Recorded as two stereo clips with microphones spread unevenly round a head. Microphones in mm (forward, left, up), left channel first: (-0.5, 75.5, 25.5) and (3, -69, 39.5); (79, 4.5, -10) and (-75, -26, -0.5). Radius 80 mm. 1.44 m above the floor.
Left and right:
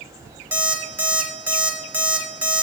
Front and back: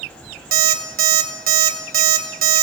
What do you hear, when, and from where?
0.5 s an alarm clock: 160° right, 1.3 m